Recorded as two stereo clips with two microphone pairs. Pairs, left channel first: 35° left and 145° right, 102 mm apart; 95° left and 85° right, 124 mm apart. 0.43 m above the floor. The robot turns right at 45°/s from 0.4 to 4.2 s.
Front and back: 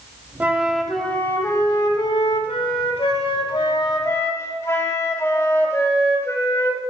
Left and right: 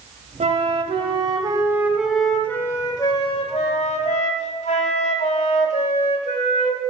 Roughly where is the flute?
Right.